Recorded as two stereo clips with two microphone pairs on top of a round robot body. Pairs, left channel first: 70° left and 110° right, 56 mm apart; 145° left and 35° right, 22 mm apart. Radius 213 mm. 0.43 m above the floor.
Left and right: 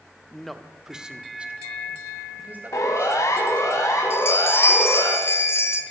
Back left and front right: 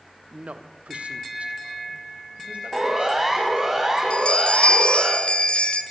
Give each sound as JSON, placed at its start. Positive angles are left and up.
{"t": 0.3, "sound": "a man speaking", "azimuth_deg": -15, "distance_m": 1.3}
{"t": 2.7, "sound": "a siren", "azimuth_deg": 40, "distance_m": 4.0}
{"t": 4.1, "sound": "a bell", "azimuth_deg": 115, "distance_m": 1.9}